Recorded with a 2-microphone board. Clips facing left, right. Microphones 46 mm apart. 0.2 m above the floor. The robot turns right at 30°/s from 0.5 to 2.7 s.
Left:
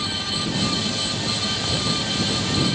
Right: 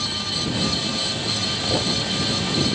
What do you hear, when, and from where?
1.7 s a thud: 45° right (ahead or behind); by 2.1 s 30° right (ahead or behind)